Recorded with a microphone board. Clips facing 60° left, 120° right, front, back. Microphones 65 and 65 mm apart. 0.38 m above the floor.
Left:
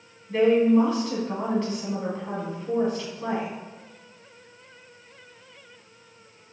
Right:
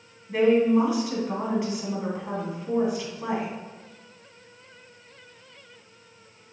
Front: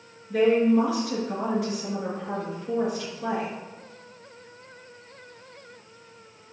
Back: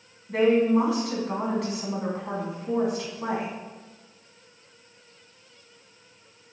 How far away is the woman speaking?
About 2.5 m.